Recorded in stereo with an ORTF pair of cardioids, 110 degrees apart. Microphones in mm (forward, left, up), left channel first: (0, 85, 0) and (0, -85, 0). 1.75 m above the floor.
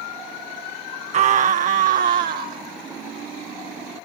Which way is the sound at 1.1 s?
40° right.